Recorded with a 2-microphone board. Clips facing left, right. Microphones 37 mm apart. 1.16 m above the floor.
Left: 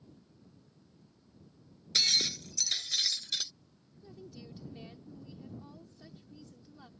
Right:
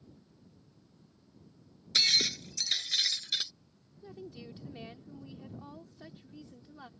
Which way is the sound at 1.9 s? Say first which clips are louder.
Right 2 dB; 20° right (ahead or behind).